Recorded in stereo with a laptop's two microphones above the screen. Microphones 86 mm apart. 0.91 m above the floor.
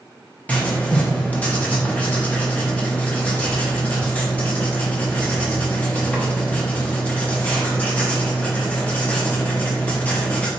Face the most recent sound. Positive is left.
turn(degrees=15)  # may be behind; listen again after turning